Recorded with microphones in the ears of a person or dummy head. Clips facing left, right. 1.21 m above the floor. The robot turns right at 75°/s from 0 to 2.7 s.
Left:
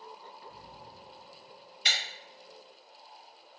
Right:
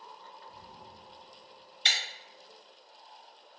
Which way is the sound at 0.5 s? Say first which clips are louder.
Left 1 dB; 125° left.